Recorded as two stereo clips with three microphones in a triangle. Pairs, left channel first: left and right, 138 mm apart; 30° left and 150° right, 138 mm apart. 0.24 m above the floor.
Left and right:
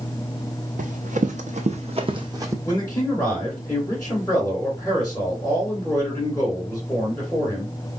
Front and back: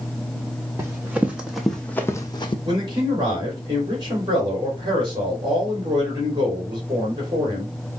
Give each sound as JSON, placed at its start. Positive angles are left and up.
{"t": 0.8, "sound": "running footsteps", "azimuth_deg": -80, "distance_m": 1.2}
{"t": 2.6, "sound": "a man speaking", "azimuth_deg": 160, "distance_m": 2.5}